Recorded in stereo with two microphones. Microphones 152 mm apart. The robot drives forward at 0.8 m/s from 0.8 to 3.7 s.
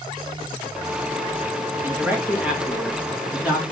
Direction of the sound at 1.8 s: 10° right (ahead or behind).